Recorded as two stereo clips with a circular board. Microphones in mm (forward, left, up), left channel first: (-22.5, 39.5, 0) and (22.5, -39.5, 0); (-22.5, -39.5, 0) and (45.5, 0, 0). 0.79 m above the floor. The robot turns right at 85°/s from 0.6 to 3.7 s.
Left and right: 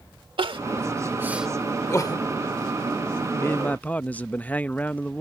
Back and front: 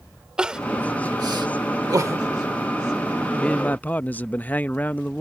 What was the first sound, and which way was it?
Crying, 50° right.